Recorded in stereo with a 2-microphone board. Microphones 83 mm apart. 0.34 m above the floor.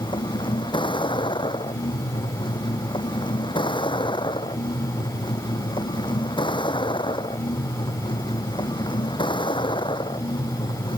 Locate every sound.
0.0 s a vehicle: 80° left